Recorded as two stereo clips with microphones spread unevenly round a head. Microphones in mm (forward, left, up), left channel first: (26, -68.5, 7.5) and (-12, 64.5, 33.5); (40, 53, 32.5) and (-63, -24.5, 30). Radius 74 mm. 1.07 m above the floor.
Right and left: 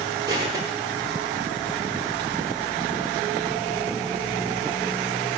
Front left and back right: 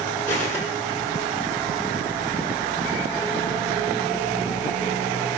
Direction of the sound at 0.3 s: 55° left.